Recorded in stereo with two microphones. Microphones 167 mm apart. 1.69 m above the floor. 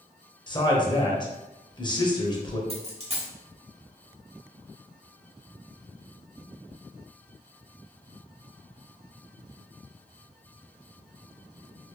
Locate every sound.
0.5 s a man speaking: 25° left (ahead or behind), 1.0 m
2.7 s a dropped coin: 40° right (ahead or behind), 1.2 m